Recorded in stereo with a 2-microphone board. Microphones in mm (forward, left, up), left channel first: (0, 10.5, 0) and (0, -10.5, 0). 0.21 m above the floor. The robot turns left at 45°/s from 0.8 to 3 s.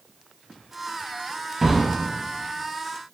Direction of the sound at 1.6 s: 25° right (ahead or behind).